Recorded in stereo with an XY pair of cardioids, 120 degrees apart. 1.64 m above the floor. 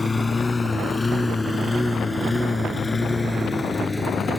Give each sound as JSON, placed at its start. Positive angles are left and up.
{"t": 0.0, "sound": "a lawn mower", "azimuth_deg": 20}